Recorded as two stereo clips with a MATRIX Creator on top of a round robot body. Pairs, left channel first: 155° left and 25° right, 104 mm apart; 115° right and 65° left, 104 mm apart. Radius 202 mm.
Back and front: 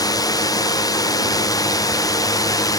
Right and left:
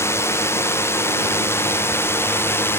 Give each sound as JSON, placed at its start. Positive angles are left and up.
{"t": 0.0, "sound": "a drone", "azimuth_deg": -170}